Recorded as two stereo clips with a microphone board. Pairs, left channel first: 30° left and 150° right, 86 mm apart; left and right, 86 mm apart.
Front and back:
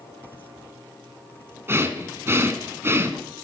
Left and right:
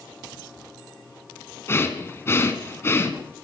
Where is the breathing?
150° left, 1.6 m.